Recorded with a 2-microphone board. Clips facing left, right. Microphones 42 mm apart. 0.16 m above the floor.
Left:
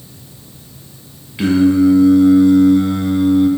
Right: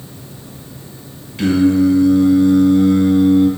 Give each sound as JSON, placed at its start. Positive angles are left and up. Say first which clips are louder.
{"t": 1.4, "sound": "singing", "louder": "left 1 dB", "side_deg": 15, "distance_m": 0.9}